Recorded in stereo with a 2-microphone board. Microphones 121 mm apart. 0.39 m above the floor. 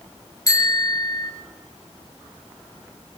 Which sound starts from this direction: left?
A bicycle bell, at 0.5 s.